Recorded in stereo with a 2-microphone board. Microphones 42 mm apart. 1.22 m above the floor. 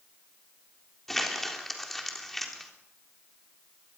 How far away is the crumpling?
About 3.5 m.